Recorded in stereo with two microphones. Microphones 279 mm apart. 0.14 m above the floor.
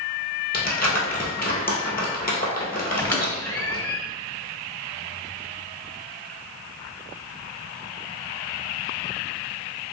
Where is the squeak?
10° left (ahead or behind), 0.8 m.